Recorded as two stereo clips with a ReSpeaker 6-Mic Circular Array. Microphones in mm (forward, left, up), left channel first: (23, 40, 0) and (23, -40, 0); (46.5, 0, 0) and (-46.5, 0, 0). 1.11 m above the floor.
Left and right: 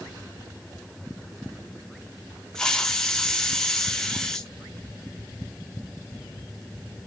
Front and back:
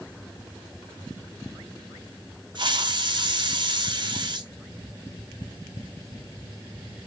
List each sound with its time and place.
2.5 s a hiss: 170° left, 0.6 m